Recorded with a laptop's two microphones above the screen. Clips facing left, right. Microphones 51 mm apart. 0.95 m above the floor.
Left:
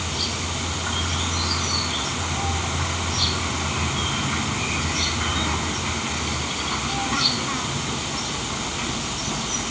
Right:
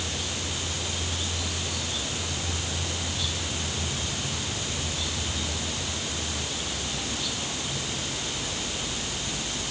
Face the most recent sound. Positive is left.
turn(degrees=85)